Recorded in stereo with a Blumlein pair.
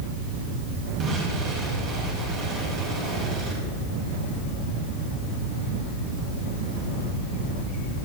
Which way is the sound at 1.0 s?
35° right.